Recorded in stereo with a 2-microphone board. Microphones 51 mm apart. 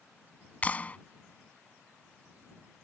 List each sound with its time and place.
0.6 s a clap: 30° left (ahead or behind)